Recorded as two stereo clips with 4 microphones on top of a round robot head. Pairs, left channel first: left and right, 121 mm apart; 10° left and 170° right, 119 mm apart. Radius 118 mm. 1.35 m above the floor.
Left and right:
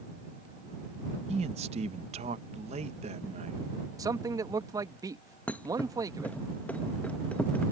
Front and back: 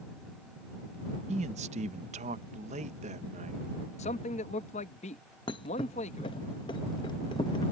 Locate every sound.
1.3 s a man speaking: 135° right
4.0 s a man speaking: 30° right
5.5 s a thud: 20° left